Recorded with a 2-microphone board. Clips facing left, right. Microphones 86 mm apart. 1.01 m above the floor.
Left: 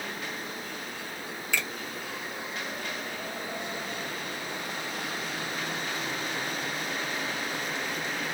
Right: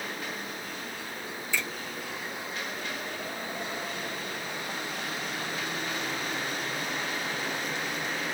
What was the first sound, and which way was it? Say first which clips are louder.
A finger snap: left 1 dB; 65° left (ahead or behind).